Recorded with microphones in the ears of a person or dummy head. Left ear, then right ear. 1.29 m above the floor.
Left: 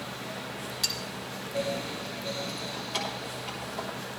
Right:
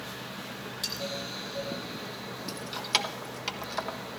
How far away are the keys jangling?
About 1.0 m.